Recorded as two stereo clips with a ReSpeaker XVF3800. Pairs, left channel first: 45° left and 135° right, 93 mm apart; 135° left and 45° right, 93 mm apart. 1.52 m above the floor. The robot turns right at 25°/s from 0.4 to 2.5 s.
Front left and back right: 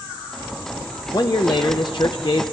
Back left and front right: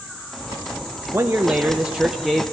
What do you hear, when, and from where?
1.1 s a man speaking: 15° left, 0.7 m; by 2.4 s 45° left, 0.7 m